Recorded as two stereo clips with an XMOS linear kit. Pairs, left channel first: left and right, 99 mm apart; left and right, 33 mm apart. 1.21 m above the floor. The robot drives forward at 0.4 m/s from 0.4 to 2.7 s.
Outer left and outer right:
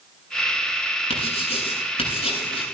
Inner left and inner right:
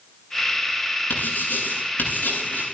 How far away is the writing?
About 9 m.